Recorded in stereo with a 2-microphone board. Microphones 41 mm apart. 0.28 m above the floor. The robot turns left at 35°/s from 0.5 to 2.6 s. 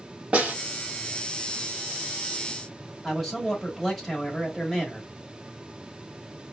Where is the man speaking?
Centre (ahead or behind), 1.1 m.